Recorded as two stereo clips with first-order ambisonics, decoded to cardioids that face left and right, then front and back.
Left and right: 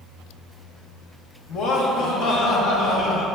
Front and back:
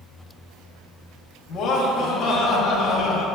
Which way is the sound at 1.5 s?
50° left.